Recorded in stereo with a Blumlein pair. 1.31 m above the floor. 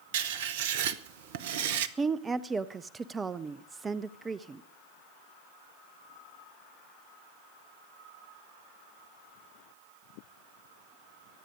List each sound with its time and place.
0.1 s writing: 50° right, 0.9 m
2.0 s a woman speaking: 15° right, 0.5 m